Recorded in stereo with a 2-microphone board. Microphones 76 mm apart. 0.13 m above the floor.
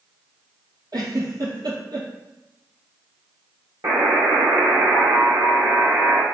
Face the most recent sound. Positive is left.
turn(degrees=-60)  # may be behind; listen again after turning